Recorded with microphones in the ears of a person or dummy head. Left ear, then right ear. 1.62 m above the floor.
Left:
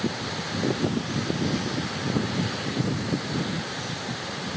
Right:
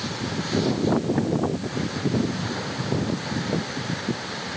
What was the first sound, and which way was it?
Only background noise.